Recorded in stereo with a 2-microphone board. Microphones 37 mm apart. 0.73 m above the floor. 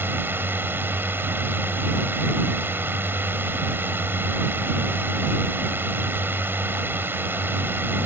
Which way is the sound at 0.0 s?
75° right (ahead or behind).